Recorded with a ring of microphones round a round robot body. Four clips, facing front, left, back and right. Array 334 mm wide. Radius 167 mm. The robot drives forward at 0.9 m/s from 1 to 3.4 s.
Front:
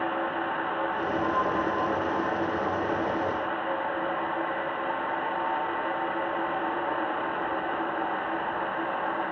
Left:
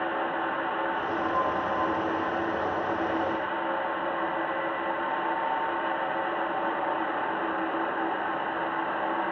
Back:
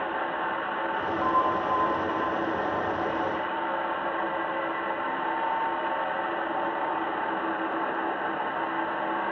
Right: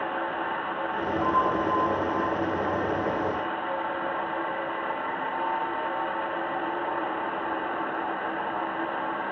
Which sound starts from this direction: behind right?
A bell, at 1.2 s.